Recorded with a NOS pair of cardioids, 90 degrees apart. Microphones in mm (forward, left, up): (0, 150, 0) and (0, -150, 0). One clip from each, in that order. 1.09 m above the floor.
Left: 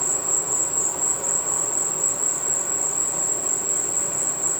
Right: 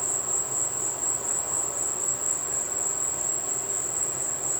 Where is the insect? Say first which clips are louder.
Left 5 dB; 45° left, 5 m.